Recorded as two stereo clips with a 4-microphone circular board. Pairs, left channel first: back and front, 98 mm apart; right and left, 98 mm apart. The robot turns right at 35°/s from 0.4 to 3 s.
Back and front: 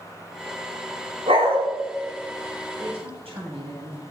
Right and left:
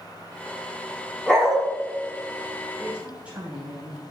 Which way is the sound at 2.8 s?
5° left.